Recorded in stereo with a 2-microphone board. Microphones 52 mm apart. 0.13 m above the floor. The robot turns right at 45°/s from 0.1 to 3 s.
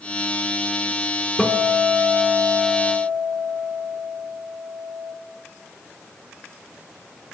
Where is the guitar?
145° left, 0.8 m; by 5.1 s 140° right, 0.8 m.